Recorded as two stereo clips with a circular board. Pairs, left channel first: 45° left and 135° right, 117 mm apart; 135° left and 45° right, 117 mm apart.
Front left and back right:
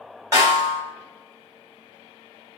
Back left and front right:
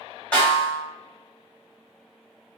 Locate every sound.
0.3 s a snare drum: 155° right, 1.7 m